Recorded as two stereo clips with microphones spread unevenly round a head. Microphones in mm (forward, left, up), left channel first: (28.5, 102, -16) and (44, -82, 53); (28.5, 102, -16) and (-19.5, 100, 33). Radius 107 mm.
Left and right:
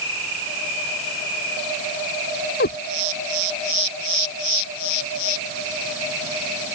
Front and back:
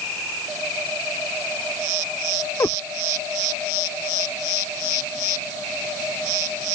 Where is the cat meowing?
50° left.